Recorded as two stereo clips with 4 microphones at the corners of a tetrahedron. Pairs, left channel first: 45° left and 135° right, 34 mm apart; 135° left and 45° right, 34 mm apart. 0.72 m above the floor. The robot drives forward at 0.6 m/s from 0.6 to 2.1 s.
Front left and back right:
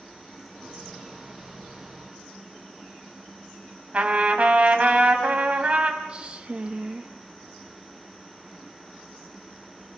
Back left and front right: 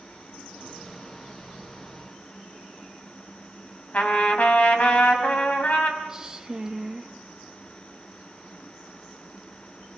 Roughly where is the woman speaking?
Right.